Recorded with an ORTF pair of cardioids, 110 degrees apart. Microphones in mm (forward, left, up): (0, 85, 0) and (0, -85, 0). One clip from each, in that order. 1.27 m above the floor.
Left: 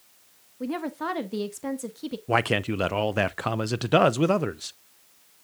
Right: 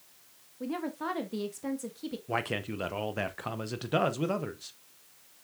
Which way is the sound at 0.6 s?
25° left.